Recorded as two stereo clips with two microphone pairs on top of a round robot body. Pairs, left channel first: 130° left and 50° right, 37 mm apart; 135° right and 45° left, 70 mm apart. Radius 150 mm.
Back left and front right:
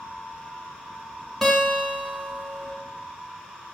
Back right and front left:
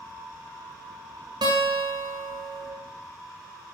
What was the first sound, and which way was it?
A guitar, 30° left.